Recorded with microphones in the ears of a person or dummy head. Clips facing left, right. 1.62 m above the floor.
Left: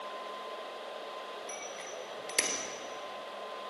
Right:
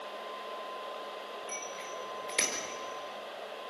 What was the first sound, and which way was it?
A bicycle bell, 5° left (ahead or behind).